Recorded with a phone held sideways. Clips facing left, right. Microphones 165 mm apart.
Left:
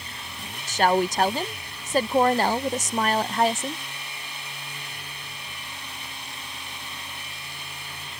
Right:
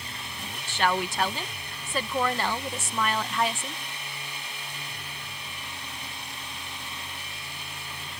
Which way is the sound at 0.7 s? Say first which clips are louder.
Left 6 dB; 40° left (ahead or behind).